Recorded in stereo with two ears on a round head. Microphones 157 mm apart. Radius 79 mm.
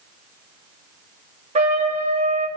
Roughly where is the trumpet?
Right.